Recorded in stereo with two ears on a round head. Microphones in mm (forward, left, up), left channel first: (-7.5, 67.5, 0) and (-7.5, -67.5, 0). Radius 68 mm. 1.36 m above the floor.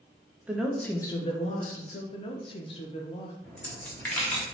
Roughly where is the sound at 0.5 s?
Centre.